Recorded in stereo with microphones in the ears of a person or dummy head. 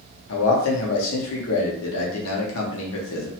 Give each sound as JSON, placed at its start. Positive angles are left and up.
{"t": 0.3, "sound": "a man speaking", "side_deg": 85, "distance_m": 0.9}